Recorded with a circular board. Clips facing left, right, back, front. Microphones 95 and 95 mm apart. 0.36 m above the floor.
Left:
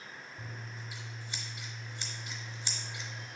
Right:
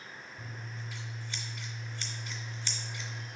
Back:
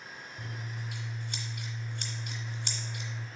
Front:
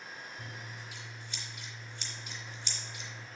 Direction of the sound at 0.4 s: 170° left.